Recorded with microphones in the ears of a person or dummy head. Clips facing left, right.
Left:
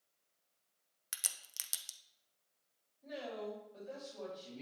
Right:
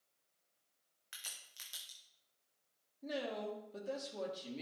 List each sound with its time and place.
1.1 s a crack: 60° left (ahead or behind), 0.7 m
3.0 s a woman speaking: 70° right (ahead or behind), 2.5 m